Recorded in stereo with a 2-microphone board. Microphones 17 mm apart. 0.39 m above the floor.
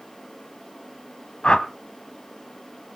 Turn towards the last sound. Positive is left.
turn(degrees=55)  # may be behind; listen again after turning